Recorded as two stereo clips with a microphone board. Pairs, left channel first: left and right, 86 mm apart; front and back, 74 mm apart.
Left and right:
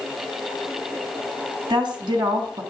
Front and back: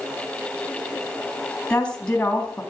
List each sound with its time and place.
1.7 s a woman speaking: 70° right, 3 m